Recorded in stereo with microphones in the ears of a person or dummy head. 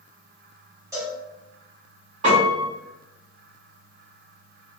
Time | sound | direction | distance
0.9 | a cowbell | 20° right (ahead or behind) | 2.0 m
2.2 | a piano | 45° right (ahead or behind) | 1.7 m